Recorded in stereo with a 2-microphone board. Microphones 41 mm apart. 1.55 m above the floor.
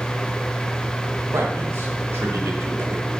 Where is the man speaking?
85° right, 2.5 m.